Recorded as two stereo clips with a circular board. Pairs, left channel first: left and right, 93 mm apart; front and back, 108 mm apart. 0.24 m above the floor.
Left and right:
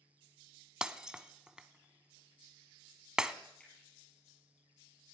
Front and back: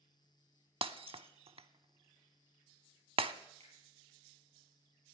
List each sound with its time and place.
0.8 s breaking glass: 170° right, 0.5 m
3.6 s a finger snap: 170° left, 5 m